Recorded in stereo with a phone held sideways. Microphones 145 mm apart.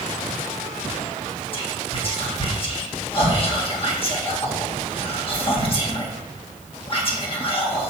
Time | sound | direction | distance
1.5 | whispering | 40° left (ahead or behind) | 1.8 m